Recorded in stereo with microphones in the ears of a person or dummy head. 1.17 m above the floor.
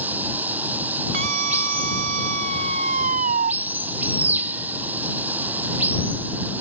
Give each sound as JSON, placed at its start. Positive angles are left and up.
{"t": 0.0, "sound": "running water", "side_deg": -10}
{"t": 1.1, "sound": "a scream", "side_deg": -50}